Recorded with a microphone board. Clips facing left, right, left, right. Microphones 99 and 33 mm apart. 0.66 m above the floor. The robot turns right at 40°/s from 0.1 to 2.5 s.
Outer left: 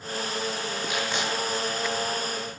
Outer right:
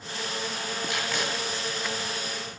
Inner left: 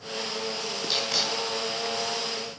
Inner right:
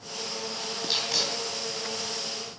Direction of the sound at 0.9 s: 10° left (ahead or behind).